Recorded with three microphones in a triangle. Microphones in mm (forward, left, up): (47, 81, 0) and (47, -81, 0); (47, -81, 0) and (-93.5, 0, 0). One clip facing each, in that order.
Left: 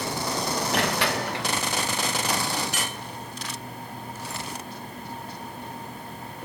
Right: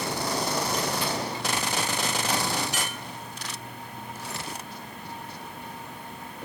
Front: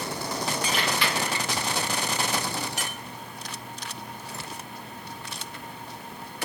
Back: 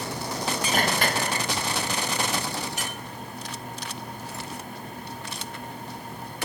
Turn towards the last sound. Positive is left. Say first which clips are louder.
# left 3 dB, back 5 dB
turn(degrees=105)